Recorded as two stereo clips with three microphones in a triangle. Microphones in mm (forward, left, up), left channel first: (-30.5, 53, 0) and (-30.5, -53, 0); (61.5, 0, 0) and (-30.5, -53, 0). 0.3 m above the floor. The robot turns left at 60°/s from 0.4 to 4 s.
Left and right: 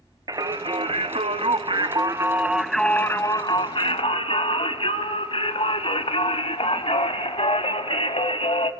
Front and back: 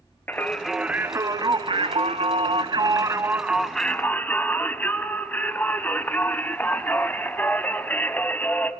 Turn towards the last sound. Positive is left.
turn(degrees=100)